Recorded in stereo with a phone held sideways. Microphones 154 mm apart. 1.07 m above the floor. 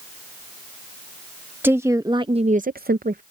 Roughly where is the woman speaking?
Centre.